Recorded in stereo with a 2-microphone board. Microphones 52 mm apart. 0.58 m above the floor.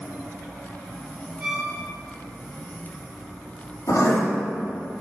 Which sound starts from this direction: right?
A violin, at 1.4 s.